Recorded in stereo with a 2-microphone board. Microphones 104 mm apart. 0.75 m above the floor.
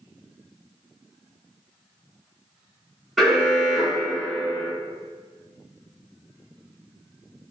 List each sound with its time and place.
3.2 s an alarm: centre (ahead or behind), 0.7 m